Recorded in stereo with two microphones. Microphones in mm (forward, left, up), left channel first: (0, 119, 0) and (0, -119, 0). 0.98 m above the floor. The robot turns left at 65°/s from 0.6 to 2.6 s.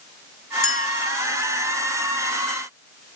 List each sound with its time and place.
0.6 s a clink: 60° left (ahead or behind), 4.5 m; by 0.9 s 75° left (ahead or behind), 4.5 m